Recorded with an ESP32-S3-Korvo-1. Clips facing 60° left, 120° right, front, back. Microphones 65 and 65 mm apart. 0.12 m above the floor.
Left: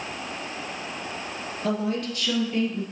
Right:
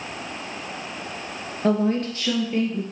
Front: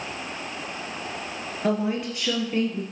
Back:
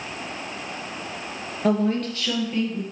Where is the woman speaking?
90° right, 1.6 m; by 2.8 s 55° right, 2.5 m.